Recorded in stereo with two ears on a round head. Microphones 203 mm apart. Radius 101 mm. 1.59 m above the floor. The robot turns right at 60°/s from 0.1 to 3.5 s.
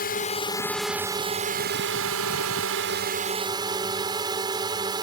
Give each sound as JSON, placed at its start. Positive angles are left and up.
{"t": 0.0, "sound": "a drone", "azimuth_deg": 135}